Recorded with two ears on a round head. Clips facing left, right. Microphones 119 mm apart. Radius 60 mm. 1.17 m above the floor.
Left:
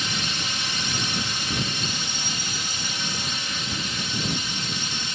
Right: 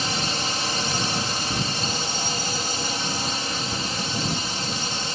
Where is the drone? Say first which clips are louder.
Right 4 dB; 35° right (ahead or behind).